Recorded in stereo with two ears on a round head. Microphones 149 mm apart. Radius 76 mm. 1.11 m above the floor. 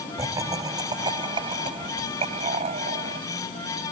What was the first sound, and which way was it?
Laughter, 20° right (ahead or behind).